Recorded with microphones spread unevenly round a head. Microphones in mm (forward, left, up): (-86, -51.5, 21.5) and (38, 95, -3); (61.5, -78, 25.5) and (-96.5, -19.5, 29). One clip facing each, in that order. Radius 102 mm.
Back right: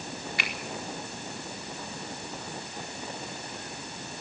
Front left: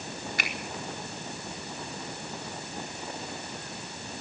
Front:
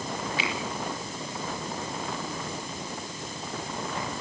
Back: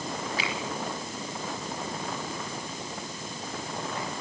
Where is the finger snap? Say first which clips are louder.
Front left 1 dB, front 1 dB; 100° left, 4.5 m.